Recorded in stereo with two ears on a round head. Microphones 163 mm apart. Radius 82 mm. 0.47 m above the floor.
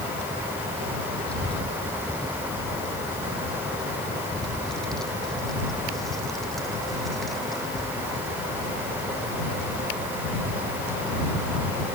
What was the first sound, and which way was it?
A child speaking, 10° left (ahead or behind).